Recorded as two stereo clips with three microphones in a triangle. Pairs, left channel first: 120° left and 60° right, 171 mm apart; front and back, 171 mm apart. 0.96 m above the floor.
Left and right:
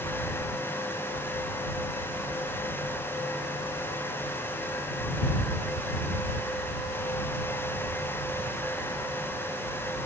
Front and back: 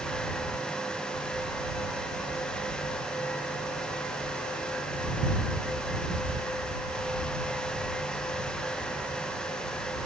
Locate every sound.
Only background noise.